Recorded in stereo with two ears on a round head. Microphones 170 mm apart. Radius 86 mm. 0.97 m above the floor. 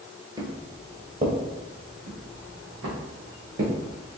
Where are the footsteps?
20° right (ahead or behind), 1.1 m; by 4.2 s 55° right (ahead or behind), 3.5 m.